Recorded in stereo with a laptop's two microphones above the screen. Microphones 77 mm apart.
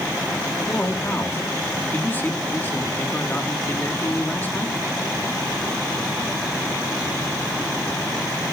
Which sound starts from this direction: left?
A man speaking, at 0.7 s.